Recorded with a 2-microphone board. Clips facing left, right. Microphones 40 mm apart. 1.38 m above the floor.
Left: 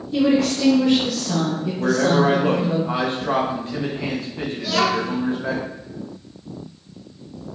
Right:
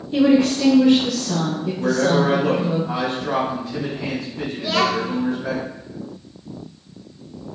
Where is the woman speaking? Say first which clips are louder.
Right 2 dB; 35° right (ahead or behind), 0.7 m; by 2.8 s 20° left (ahead or behind), 1.6 m.